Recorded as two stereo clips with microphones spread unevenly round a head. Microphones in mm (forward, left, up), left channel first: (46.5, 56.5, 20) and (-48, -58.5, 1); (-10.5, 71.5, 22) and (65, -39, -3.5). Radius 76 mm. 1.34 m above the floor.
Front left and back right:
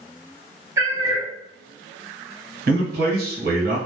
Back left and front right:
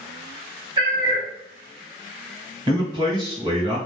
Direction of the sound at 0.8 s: 65° right.